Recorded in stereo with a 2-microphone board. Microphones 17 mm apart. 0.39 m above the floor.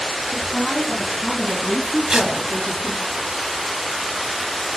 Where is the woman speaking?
60° left (ahead or behind), 4 m; by 3.1 s 50° left (ahead or behind), 6 m.